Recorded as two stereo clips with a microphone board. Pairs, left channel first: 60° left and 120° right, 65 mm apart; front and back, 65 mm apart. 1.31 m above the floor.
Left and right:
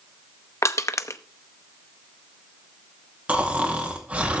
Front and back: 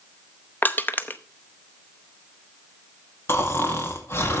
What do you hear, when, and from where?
0.6 s crushing: 50° left, 0.7 m
3.3 s snoring: 50° right, 2 m